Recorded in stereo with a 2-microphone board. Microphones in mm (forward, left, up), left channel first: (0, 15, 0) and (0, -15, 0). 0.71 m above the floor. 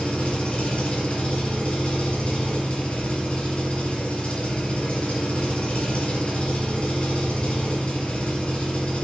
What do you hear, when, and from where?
0.0 s an engine running: 50° left (ahead or behind), 1.5 m